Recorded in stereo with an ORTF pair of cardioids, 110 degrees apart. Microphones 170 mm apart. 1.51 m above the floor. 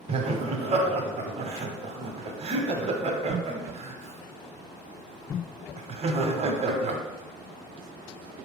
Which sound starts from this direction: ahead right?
Laughter, at 0.1 s.